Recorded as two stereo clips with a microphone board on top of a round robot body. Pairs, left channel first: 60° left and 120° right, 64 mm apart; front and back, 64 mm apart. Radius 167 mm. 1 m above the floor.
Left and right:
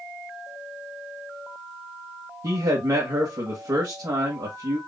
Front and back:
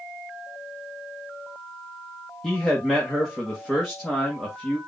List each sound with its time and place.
2.4 s a man speaking: 85° right, 1.4 m